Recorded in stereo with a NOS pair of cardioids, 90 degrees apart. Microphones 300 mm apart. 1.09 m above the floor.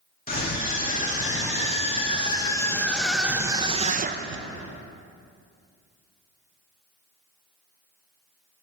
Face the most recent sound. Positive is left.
turn(degrees=-50)